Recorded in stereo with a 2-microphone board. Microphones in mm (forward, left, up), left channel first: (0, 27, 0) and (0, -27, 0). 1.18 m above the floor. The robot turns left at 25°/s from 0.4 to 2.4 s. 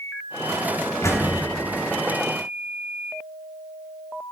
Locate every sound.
1.0 s a door slam: 65° left (ahead or behind), 1.4 m; by 1.4 s 55° left (ahead or behind), 1.4 m